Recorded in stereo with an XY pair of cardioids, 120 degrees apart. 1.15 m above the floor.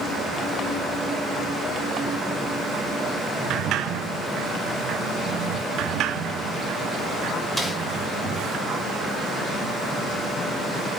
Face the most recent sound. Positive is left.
turn(degrees=0)